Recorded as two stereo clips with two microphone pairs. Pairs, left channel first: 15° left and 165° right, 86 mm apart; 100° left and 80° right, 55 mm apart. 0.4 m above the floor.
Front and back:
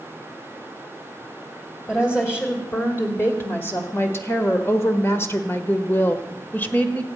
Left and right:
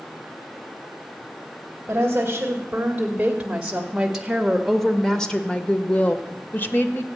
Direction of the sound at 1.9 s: 45° right.